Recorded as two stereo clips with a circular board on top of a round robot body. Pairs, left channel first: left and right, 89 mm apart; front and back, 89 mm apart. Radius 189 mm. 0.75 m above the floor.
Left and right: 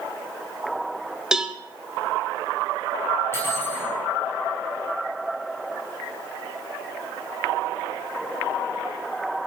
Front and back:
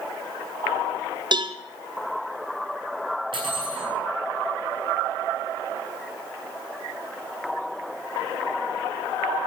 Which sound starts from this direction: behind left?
Cutlery clinking, at 3.3 s.